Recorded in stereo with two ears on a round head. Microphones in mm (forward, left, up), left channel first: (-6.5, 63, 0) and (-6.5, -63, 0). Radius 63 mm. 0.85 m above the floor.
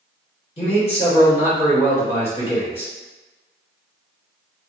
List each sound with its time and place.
0.6 s a man speaking: 45° left (ahead or behind), 1.5 m